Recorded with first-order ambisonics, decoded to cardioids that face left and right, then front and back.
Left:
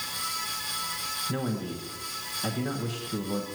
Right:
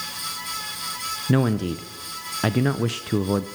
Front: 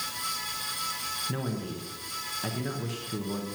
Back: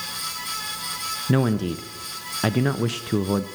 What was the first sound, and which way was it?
A man speaking, 130° right.